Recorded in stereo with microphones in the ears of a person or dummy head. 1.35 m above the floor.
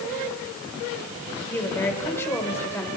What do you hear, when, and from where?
1.4 s a woman speaking: 15° left (ahead or behind), 4.5 m